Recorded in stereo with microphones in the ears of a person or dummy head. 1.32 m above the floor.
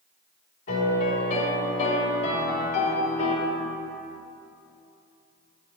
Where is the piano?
40° left (ahead or behind), 3 m.